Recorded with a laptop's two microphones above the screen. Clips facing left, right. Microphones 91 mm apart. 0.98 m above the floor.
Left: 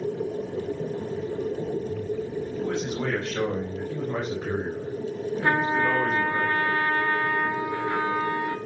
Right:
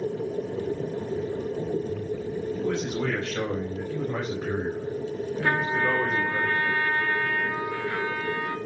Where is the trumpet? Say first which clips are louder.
Left 2 dB; 20° left (ahead or behind), 4 m.